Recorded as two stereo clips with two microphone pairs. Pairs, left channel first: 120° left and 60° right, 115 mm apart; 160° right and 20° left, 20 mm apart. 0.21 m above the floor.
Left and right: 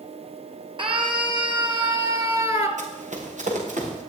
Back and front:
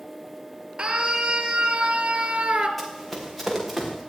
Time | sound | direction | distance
0.8 | a scream | 20° right | 4 m
2.8 | running footsteps | 70° right | 5 m